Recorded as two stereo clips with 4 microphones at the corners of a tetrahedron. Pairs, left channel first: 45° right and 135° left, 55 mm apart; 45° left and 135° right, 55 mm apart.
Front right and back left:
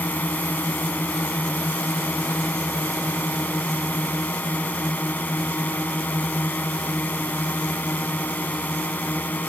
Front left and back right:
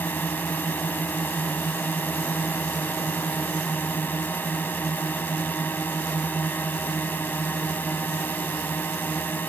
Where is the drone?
5° left.